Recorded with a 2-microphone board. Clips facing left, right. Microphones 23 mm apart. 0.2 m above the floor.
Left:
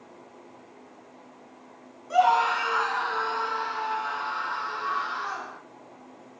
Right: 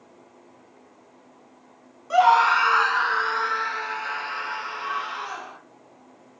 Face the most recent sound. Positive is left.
turn(degrees=-40)  # may be behind; listen again after turning